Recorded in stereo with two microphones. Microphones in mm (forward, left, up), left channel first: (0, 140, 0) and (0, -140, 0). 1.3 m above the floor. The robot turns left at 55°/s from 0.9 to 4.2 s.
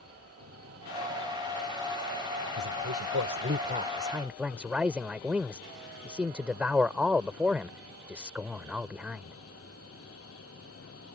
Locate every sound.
0.0 s an engine running: 120° right; by 11.2 s 55° left
2.6 s a man speaking: 85° right; by 9.4 s 175° right